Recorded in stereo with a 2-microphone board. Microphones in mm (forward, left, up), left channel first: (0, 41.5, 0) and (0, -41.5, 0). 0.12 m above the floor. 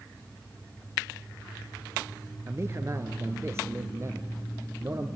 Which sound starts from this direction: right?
A man speaking, at 2.5 s.